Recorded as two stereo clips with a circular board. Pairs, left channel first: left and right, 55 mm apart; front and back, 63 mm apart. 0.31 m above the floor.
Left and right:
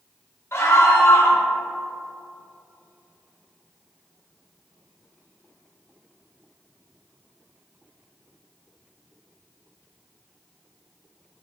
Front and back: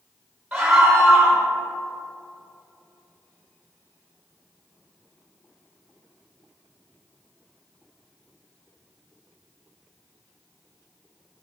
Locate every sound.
0.5 s a scream: 125° left, 1.5 m